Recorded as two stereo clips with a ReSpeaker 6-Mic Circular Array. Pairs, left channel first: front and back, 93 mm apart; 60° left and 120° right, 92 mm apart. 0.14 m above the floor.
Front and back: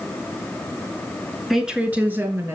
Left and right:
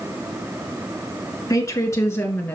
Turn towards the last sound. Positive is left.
turn(degrees=125)